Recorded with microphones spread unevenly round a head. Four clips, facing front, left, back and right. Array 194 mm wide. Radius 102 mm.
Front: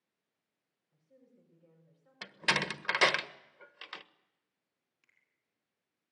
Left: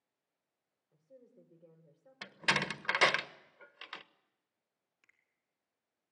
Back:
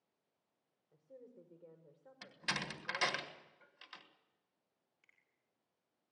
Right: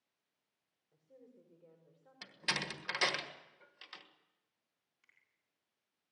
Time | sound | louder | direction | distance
0.9 | a woman speaking | left 1 dB, back 7 dB | 165° left | 5.5 m
2.2 | a door slam | left 7 dB, front 9 dB | 15° left | 1.4 m
5.0 | a finger snap | even, even | 115° left | 3.5 m